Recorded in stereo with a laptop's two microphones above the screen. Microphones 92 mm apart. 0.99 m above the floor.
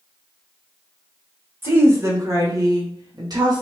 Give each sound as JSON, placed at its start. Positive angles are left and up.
{"t": 1.6, "sound": "a woman speaking", "side_deg": -25, "distance_m": 1.1}